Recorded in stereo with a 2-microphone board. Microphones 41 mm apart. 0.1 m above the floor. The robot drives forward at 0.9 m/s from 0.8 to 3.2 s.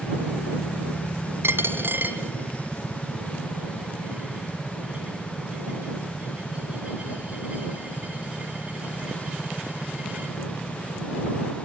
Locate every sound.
1.4 s a dropped coin: 65° right (ahead or behind), 1.3 m; by 10.3 s 30° right (ahead or behind), 2.5 m